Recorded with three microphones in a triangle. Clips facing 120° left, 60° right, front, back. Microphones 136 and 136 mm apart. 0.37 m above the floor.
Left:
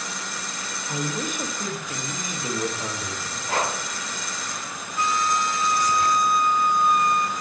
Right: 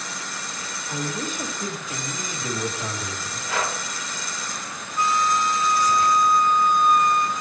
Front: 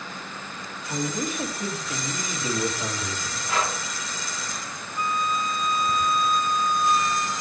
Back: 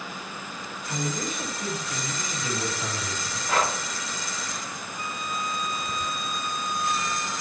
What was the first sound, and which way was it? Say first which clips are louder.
A man speaking: left 1 dB, front 3 dB; 55° left.